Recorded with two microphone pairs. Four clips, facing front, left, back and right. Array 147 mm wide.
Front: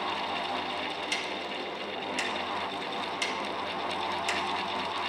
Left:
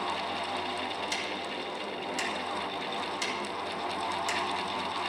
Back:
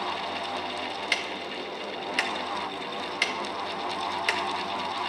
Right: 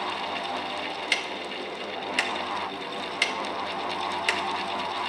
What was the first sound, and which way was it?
Ticking, 145° right.